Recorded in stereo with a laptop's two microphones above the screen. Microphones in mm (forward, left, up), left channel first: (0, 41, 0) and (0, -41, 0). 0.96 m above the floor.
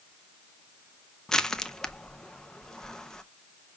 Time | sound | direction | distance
1.3 | crushing | 10° left (ahead or behind) | 0.5 m